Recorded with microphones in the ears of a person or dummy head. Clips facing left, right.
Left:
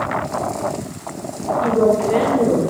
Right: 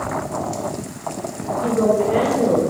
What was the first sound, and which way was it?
A woman speaking, 60° left (ahead or behind).